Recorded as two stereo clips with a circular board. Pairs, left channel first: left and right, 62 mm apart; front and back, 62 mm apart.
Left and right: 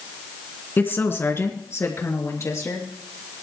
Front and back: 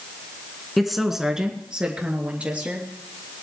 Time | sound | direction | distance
0.8 | a woman speaking | 90° left | 1.8 m